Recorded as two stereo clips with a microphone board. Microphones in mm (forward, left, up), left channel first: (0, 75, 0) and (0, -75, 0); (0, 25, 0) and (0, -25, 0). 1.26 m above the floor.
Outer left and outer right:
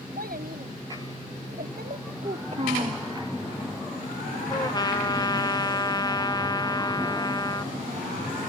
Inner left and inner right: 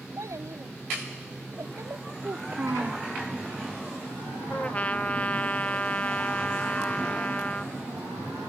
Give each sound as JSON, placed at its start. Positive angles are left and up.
{"t": 0.2, "sound": "a child speaking", "side_deg": -85}
{"t": 2.2, "sound": "a child speaking", "side_deg": -50}
{"t": 4.5, "sound": "a trumpet", "side_deg": 25}